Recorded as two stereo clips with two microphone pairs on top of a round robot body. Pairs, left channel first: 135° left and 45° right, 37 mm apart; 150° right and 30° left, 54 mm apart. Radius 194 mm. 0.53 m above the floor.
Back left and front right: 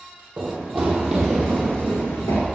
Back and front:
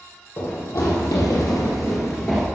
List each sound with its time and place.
0.4 s running footsteps: 120° right, 1.6 m; by 2.4 s 115° left, 0.6 m